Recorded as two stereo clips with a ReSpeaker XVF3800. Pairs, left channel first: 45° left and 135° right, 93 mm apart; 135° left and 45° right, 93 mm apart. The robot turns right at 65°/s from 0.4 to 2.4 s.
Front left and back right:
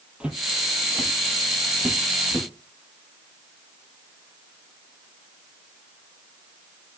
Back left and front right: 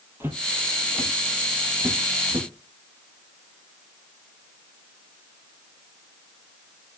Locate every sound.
0.2 s footsteps: 70° right, 1.7 m; by 2.5 s 35° right, 2.5 m